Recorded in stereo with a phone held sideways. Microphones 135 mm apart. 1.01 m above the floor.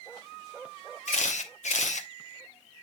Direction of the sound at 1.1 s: 65° left (ahead or behind).